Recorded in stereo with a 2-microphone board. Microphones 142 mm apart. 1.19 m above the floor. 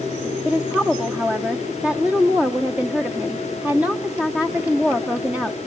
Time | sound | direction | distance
0.5 | a woman speaking | 10° right (ahead or behind) | 1.0 m